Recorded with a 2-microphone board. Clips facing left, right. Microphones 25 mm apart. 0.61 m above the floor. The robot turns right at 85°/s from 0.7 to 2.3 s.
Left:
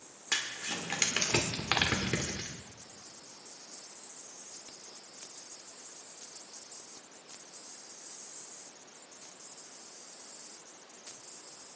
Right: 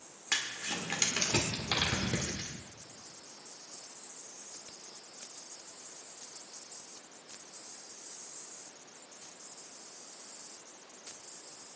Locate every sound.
0.3 s crumpling: 5° right (ahead or behind), 1.7 m; by 2.5 s 45° left (ahead or behind), 1.7 m